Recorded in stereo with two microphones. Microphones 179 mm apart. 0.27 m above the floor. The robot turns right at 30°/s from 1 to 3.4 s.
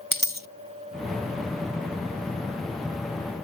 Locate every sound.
0.1 s a dropped coin: 60° right (ahead or behind)